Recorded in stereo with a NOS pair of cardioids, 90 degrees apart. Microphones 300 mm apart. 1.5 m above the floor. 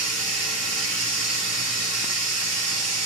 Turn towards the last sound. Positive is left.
turn(degrees=-60)